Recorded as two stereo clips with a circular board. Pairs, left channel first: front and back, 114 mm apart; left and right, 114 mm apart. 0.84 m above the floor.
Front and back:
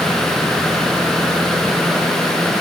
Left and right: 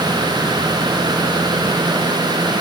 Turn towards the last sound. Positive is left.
No sound to turn to.